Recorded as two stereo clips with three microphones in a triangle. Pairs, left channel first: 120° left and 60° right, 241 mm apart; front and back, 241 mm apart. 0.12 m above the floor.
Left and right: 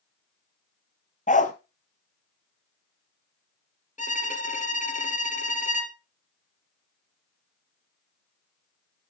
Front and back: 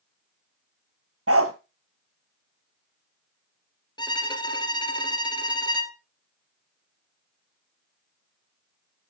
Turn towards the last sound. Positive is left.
turn(degrees=70)